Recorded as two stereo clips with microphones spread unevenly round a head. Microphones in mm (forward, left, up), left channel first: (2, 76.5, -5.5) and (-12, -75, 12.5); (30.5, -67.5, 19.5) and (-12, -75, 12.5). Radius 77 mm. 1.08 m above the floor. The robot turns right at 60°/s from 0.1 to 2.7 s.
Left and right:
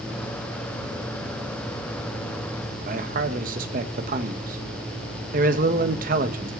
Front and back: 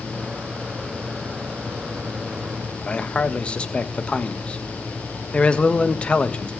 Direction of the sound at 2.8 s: 55° right.